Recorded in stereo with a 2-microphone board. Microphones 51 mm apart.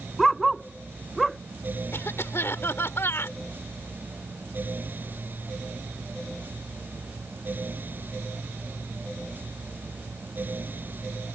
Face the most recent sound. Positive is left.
turn(degrees=60)  # may be behind; listen again after turning